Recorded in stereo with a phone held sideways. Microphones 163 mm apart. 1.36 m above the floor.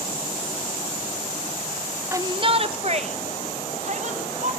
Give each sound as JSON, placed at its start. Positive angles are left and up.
{"t": 2.1, "sound": "a shout", "side_deg": -15, "distance_m": 0.6}